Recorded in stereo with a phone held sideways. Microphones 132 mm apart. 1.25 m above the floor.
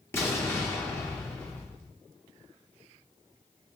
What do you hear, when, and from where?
0.1 s an explosion: 20° left (ahead or behind), 0.7 m